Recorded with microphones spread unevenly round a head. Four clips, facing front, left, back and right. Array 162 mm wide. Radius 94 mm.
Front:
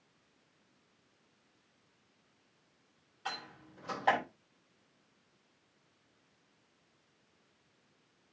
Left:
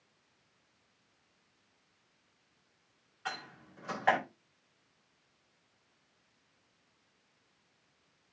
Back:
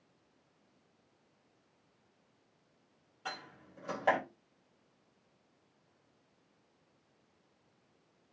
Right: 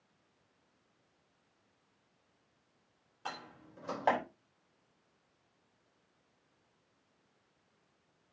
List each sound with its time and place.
3.2 s a door slam: 120° right, 5 m